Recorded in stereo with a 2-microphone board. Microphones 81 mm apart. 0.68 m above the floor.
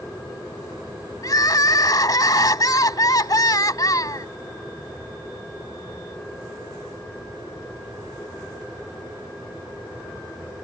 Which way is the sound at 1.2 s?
55° left (ahead or behind).